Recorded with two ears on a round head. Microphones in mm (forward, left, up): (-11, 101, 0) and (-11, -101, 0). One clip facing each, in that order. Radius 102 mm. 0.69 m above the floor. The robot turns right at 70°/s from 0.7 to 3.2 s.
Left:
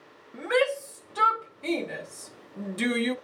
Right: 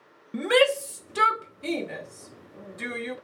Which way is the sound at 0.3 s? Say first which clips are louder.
Right 4 dB; 45° right (ahead or behind).